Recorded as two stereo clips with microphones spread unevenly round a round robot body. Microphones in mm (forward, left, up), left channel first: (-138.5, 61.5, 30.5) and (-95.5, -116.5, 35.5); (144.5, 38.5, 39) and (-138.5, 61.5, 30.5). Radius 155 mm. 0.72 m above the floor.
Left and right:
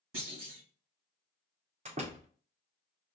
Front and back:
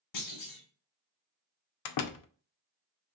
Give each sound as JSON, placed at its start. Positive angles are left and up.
{"t": 0.1, "sound": "a clunk", "azimuth_deg": -30, "distance_m": 1.7}
{"t": 1.9, "sound": "a door slam", "azimuth_deg": -15, "distance_m": 0.5}